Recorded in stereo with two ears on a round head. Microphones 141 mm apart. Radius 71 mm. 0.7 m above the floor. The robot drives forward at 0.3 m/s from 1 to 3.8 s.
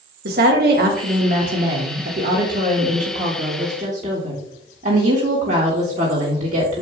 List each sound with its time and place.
0.2 s a woman speaking: 65° right (ahead or behind), 1.4 m; by 6.8 s 50° right (ahead or behind), 1.7 m